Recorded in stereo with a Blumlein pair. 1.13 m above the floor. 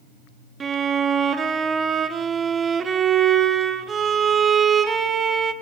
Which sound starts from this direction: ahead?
A violin, at 0.6 s.